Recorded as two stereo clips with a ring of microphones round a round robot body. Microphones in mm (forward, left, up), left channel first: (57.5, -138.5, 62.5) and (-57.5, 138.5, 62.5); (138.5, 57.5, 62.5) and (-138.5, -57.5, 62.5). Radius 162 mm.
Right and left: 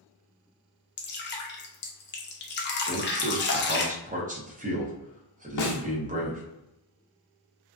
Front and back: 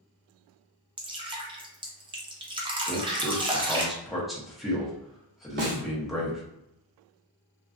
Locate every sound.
1.0 s dripping: 95° right, 0.6 m
2.9 s a man speaking: 115° left, 0.8 m
5.6 s a snare drum: 100° right, 0.5 m